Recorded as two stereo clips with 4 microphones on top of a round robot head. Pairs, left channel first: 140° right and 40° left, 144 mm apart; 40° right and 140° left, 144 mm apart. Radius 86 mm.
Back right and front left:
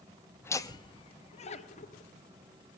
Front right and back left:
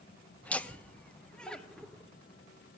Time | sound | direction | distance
0.4 | laughter | 100° right | 0.7 m